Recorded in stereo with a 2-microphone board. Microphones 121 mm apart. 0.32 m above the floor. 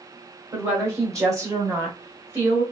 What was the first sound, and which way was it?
A woman speaking, 20° right (ahead or behind).